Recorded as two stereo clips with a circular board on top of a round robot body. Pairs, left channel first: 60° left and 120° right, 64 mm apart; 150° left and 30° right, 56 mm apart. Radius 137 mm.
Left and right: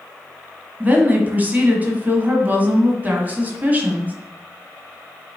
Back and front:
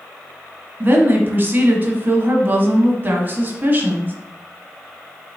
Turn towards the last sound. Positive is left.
turn(degrees=-65)